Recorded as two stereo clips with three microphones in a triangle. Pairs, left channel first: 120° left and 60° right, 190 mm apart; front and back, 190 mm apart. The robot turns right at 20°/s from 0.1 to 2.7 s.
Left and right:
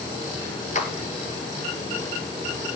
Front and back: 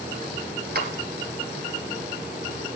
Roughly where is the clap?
Behind.